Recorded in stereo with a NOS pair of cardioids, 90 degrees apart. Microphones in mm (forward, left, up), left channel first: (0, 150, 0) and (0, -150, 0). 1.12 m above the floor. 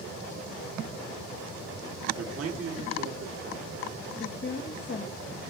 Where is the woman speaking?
35° left, 1.0 m.